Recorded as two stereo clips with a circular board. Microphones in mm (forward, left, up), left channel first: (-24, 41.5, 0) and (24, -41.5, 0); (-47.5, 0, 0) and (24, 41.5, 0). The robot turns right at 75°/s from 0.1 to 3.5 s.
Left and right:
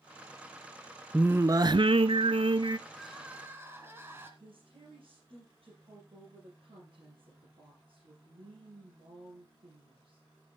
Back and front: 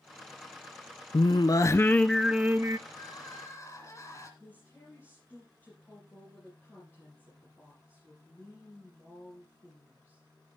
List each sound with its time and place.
1.1 s singing: 140° right, 0.5 m; by 2.8 s 15° right, 0.5 m
2.9 s crying: 165° right, 2 m; by 4.3 s 115° right, 2 m
4.4 s a woman speaking: 80° right, 5.5 m